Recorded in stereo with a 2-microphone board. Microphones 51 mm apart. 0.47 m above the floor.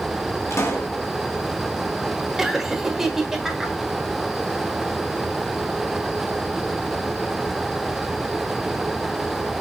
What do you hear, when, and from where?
0.5 s a pop: 60° left (ahead or behind), 2.0 m
2.4 s laughter: 5° right (ahead or behind), 1.3 m